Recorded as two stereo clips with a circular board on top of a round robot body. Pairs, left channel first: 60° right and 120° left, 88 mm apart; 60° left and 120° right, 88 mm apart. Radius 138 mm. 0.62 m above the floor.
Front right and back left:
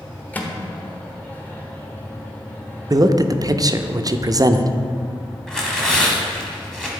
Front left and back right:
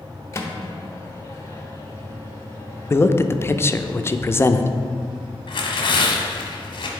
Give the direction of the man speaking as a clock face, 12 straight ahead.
8 o'clock.